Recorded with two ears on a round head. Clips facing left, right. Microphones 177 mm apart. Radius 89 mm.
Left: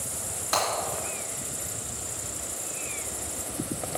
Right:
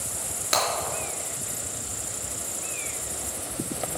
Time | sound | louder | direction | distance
0.5 | breaking glass | right 1 dB | 30° right (ahead or behind) | 4.5 m